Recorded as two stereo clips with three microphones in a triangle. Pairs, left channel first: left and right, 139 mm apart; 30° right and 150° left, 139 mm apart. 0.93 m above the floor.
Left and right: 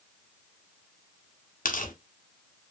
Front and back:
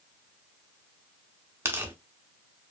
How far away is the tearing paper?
About 1.1 m.